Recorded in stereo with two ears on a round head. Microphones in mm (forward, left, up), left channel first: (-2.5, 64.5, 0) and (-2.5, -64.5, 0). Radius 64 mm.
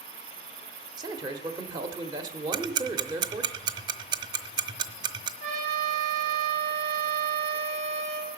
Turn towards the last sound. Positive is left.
turn(degrees=-50)  # may be behind; listen again after turning